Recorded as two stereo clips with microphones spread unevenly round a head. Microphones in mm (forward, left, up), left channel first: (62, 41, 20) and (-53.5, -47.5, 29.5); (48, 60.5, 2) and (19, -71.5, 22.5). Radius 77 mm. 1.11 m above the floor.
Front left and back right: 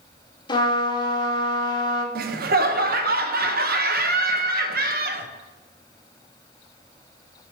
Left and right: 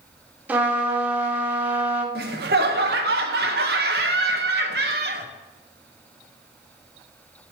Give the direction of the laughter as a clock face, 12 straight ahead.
4 o'clock.